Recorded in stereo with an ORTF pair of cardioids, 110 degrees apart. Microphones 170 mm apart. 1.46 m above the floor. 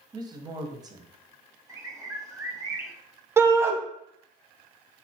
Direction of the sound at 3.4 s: 15° right.